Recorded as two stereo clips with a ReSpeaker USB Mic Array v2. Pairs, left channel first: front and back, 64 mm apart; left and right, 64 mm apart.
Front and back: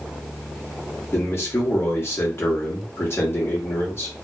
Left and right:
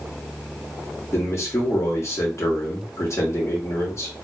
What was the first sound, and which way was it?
A man speaking, 50° left.